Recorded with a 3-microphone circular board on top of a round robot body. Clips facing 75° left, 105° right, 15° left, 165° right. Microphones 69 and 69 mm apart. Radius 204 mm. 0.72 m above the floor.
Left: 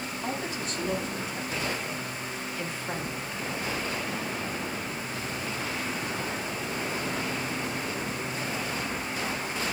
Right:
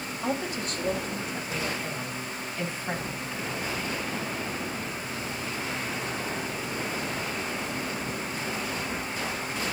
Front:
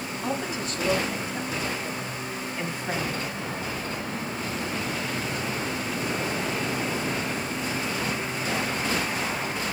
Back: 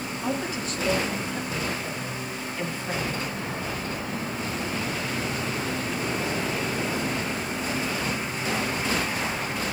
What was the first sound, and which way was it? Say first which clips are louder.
A woman speaking: right 4 dB, back 1 dB; 75° right.